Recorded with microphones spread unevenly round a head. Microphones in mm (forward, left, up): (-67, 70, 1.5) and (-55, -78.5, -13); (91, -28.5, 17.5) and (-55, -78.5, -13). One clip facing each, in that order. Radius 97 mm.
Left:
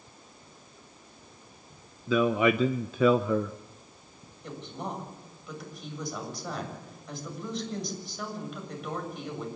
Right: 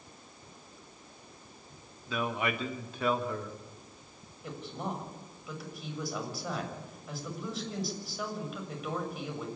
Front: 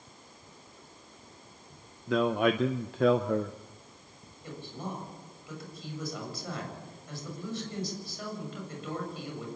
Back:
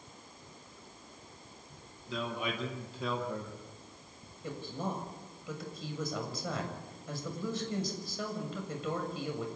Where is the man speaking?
70° left, 0.6 m.